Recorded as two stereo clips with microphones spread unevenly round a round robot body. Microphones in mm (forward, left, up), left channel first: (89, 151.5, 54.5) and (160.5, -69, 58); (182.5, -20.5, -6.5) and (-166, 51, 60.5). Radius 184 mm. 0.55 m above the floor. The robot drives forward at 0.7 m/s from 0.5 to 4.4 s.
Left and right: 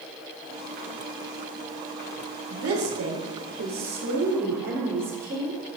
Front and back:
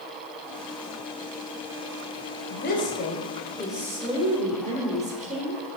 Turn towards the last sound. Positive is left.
turn(degrees=-115)